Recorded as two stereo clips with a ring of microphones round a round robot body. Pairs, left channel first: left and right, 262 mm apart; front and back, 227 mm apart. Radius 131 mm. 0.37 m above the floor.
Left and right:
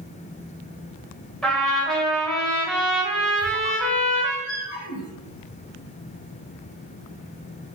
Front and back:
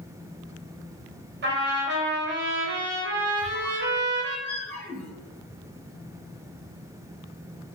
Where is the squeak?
80° left, 1.7 m.